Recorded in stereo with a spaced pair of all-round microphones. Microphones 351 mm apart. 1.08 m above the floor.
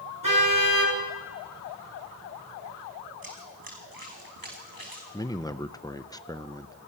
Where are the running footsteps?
75° right (ahead or behind), 4 m.